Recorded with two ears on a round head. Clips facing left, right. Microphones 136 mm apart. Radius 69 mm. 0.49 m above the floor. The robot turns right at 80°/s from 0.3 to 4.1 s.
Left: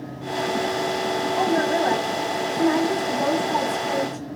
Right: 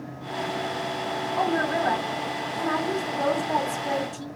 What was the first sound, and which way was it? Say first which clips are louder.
A woman speaking: left 3 dB; 25° left.